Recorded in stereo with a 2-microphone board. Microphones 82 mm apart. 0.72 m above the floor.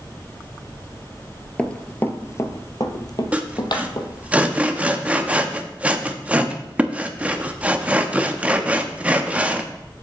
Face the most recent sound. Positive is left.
turn(degrees=-15)  # may be behind; listen again after turning